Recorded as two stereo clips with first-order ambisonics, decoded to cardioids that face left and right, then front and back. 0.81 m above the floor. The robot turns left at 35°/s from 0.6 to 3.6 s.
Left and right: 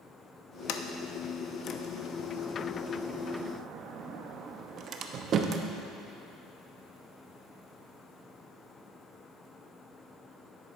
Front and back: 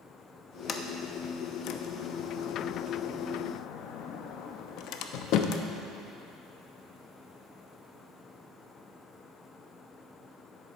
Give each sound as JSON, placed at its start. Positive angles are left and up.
{"t": 0.7, "sound": "a sliding door", "azimuth_deg": 65, "distance_m": 0.5}